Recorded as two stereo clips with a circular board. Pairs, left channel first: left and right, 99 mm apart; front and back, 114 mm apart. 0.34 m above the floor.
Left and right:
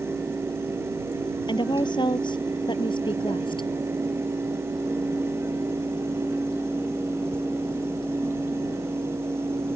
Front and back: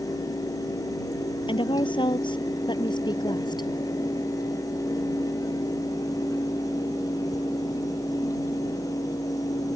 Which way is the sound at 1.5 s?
45° left.